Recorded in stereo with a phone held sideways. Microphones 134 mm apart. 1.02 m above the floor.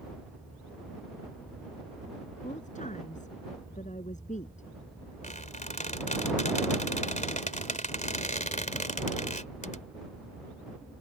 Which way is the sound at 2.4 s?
75° left (ahead or behind).